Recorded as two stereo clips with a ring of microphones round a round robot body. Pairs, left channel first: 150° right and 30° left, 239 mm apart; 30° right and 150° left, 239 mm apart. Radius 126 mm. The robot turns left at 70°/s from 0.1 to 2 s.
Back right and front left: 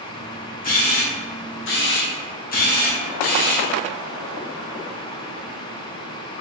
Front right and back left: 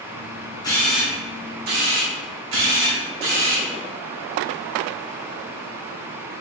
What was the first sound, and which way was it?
A camera shutter, 100° right.